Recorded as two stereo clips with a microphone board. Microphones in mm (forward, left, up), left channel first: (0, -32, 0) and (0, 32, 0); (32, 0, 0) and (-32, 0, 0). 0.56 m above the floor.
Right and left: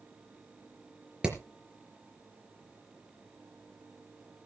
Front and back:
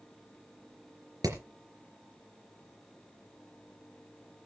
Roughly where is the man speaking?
No man speaking in this recording.